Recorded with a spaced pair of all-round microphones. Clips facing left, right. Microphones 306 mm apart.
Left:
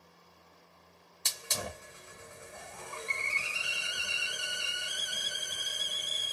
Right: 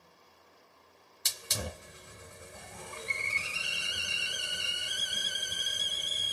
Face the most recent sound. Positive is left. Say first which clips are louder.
# right 1 dB
turn(degrees=-20)  # may be behind; listen again after turning